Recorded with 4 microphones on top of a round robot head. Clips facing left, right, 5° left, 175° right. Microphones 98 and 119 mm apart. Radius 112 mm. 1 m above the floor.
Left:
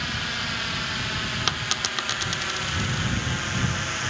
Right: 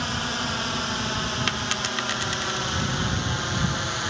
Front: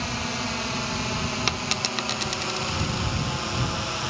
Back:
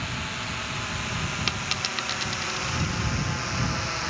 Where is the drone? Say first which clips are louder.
Right 3 dB, front 5 dB; 45° right.